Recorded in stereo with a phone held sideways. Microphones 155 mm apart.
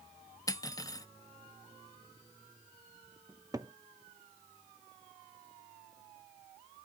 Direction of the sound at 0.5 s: 25° left (ahead or behind).